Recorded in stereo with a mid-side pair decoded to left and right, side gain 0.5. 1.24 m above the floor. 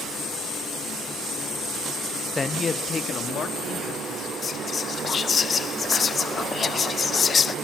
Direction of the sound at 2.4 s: 25° left.